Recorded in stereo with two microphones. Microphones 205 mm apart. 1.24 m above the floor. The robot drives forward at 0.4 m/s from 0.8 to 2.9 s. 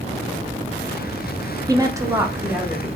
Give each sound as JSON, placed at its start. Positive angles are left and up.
{"t": 1.7, "sound": "a woman speaking", "side_deg": -20, "distance_m": 0.5}